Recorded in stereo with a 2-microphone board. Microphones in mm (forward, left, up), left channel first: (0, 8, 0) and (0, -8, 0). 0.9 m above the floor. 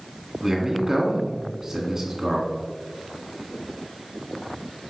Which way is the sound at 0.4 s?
35° right (ahead or behind).